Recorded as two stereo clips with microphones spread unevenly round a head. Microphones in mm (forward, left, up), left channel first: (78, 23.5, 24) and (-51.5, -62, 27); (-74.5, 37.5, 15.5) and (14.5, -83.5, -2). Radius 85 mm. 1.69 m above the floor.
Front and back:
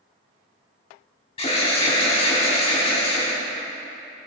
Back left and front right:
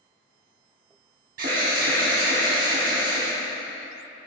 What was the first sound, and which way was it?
An alarm, 20° right.